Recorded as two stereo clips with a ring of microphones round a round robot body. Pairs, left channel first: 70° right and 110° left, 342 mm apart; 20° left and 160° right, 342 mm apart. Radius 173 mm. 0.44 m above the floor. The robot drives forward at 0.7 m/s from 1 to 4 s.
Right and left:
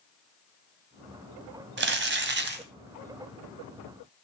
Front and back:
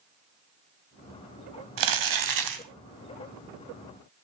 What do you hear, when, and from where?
1.8 s crumpling: 170° left, 2 m; by 2.6 s 175° left, 2.5 m